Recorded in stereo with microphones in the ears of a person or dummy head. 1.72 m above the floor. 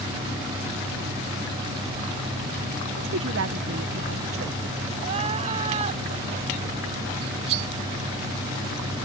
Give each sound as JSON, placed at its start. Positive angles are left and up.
{"t": 3.0, "sound": "a woman speaking", "side_deg": -65}
{"t": 5.0, "sound": "crying", "side_deg": -35}
{"t": 7.2, "sound": "cutlery clinking", "side_deg": -40}